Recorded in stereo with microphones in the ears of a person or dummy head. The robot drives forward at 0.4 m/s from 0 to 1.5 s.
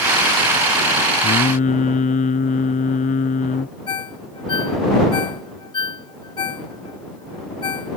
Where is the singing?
40° left (ahead or behind); by 3.8 s 35° left (ahead or behind).